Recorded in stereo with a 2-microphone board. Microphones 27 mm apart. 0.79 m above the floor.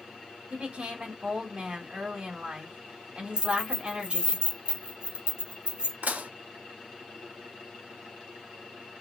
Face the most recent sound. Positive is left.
turn(degrees=-85)